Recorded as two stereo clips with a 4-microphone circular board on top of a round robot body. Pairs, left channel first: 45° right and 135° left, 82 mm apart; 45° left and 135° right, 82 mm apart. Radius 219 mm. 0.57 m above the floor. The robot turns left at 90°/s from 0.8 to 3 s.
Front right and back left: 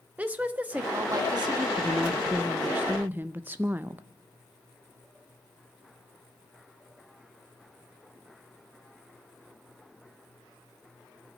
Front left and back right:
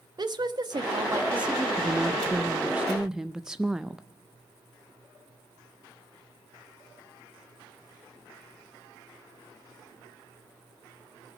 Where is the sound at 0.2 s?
155° right, 1.5 m; by 1.7 s 125° left, 1.5 m.